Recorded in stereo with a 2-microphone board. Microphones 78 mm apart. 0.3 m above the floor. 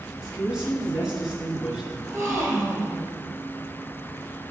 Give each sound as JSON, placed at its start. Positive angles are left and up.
{"t": 0.2, "sound": "a woman speaking", "side_deg": -10, "distance_m": 4.0}
{"t": 2.0, "sound": "a gasp", "side_deg": -35, "distance_m": 3.0}